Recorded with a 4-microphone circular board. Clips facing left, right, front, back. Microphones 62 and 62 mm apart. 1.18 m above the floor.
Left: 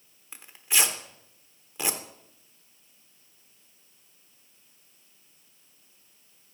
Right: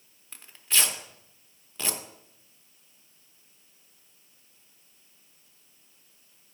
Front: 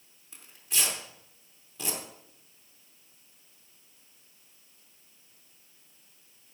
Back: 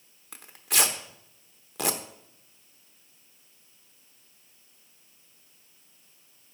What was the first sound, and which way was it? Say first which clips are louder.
Tearing paper: left 1 dB, back 6 dB; 165° left.